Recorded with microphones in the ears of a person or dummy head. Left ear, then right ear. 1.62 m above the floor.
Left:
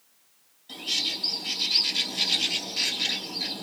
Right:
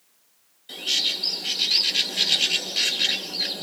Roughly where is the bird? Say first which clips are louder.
Right 4 dB; right.